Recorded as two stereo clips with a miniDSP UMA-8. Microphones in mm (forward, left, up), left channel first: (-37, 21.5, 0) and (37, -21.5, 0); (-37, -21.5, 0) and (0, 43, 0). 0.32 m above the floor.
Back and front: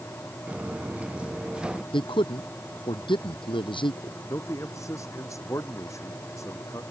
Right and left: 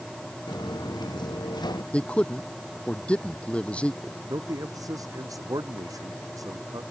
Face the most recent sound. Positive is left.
turn(degrees=95)